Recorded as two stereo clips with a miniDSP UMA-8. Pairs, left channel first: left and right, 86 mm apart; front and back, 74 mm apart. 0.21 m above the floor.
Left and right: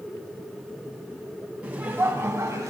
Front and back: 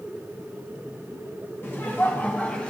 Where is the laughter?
30° right, 1.2 m; by 2.7 s 70° right, 1.4 m.